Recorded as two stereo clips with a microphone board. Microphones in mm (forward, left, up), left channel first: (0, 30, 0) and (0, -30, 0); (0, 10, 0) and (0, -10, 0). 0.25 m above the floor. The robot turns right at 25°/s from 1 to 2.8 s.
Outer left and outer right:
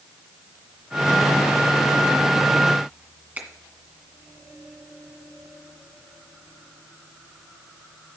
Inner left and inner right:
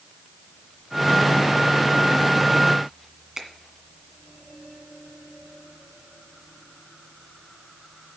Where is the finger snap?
30° right (ahead or behind), 1.9 m.